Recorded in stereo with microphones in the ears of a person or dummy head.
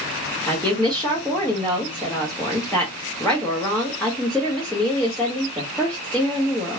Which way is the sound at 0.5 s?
5° left (ahead or behind).